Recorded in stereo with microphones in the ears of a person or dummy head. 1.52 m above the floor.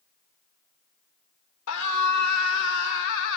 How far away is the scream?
About 4.5 m.